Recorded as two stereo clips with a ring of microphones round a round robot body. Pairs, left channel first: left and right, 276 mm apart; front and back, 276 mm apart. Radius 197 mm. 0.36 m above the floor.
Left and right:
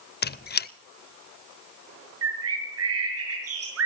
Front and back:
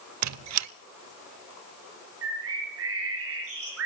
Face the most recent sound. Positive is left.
turn(degrees=-125)